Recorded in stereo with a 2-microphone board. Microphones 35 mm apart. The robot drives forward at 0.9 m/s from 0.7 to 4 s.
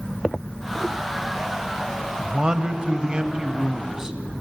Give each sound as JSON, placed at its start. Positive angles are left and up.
{"t": 2.2, "sound": "a man speaking", "side_deg": -25, "distance_m": 1.0}